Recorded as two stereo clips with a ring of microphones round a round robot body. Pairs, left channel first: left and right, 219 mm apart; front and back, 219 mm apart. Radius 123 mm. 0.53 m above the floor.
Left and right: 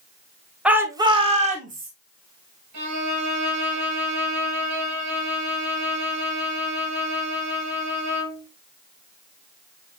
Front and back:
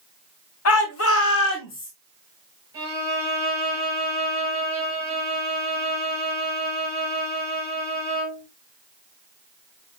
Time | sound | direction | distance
0.7 | a shout | 5° right | 2 m
2.7 | a violin | 100° right | 6 m